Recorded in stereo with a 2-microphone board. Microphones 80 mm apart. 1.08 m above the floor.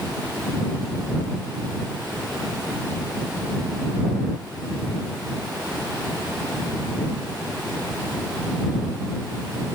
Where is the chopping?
No chopping in this recording.